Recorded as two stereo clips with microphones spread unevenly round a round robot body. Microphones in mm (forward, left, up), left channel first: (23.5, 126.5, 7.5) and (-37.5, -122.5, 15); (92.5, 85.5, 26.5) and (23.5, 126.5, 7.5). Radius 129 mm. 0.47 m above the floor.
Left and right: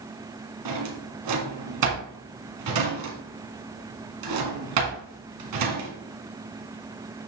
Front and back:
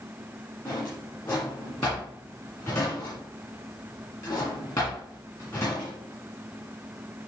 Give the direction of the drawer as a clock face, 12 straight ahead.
4 o'clock.